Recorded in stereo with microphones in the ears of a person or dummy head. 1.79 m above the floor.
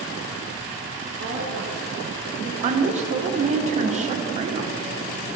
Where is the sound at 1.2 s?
75° right (ahead or behind), 1.6 m; by 2.5 s 85° right, 2.5 m.